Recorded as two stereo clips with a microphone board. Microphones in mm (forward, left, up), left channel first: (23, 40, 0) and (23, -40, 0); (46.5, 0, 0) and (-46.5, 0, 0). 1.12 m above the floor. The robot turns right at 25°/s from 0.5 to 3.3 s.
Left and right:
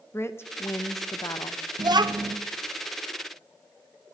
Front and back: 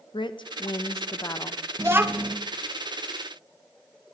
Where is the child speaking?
120° right, 0.6 m; by 2.4 s 105° right, 0.6 m.